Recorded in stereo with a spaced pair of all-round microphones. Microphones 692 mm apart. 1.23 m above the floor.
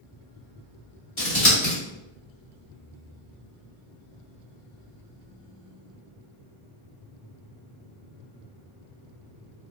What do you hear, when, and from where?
1.2 s scissors: 40° left (ahead or behind), 1.3 m